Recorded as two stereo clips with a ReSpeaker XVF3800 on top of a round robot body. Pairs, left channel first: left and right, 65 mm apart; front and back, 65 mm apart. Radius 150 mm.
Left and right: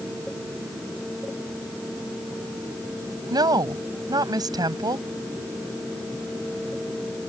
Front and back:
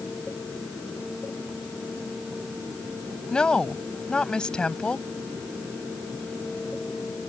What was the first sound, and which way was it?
A woman speaking, 75° right.